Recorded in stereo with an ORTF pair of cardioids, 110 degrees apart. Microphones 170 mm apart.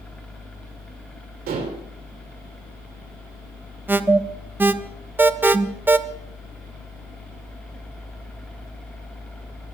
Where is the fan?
5° left, 3 m.